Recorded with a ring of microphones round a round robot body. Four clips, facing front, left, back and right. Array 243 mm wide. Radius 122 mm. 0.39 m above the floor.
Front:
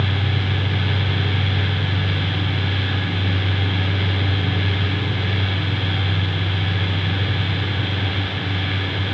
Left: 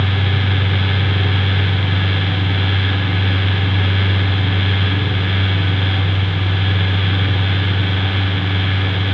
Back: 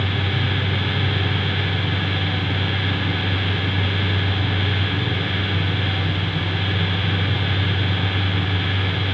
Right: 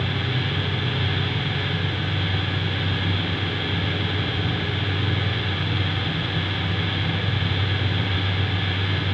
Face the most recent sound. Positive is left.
No sound to turn to.